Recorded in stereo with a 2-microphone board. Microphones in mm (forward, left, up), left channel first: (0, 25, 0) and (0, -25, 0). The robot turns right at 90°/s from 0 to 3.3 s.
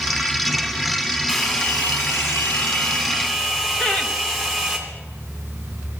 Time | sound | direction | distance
1.3 | a hair dryer | 5° right | 2 m
3.8 | laughter | 20° left (ahead or behind) | 1.2 m